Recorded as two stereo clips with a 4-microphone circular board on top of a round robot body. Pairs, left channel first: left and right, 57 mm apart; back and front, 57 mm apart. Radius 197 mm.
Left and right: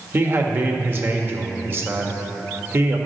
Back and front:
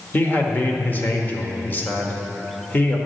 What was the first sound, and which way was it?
A man speaking, 130° right.